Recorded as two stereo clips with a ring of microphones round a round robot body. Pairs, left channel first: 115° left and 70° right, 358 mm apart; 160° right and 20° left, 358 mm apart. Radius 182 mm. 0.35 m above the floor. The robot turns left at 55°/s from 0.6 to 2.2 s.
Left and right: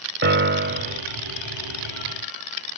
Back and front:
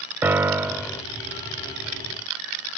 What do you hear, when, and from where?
0.2 s a piano: 55° right, 0.5 m; by 1.0 s 80° right, 0.5 m